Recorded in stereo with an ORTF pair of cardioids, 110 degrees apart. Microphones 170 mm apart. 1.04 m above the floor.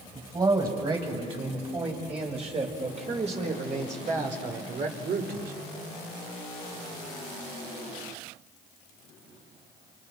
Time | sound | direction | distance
0.1 | a man speaking | 30° right | 6 m